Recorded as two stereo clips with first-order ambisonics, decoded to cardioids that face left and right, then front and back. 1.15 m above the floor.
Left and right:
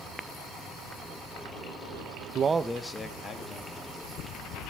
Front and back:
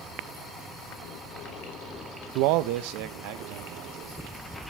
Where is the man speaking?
145° right, 0.6 m; by 4.5 s 150° left, 3 m.